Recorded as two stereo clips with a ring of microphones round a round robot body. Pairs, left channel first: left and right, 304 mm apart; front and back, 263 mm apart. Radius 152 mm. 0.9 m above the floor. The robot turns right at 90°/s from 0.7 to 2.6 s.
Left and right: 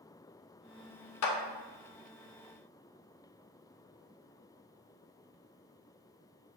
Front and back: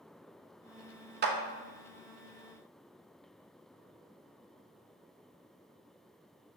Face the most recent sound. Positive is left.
turn(degrees=-110)